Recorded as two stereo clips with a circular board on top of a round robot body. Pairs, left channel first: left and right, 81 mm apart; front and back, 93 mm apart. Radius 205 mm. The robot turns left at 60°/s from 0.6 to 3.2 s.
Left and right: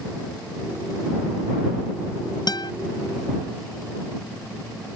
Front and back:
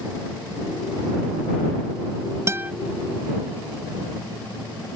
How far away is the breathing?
No breathing in this recording.